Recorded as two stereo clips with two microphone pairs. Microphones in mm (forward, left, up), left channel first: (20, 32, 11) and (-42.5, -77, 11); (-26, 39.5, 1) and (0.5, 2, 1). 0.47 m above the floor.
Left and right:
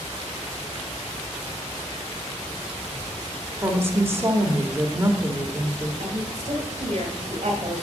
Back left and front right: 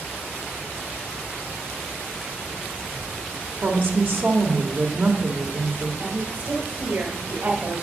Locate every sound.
3.6 s a woman speaking: 55° right, 1.7 m
6.0 s a woman speaking: 80° right, 2 m